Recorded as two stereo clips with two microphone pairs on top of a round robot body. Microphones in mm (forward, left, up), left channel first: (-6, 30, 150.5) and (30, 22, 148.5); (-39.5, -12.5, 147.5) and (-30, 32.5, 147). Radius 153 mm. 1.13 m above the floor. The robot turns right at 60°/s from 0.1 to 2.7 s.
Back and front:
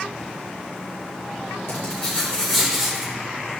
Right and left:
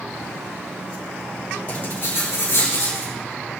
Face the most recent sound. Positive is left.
turn(degrees=-100)